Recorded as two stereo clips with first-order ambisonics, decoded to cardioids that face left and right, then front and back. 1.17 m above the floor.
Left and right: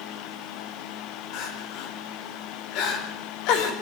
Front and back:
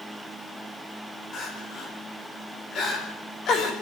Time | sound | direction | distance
1.3 | crying | 60° left | 4.5 m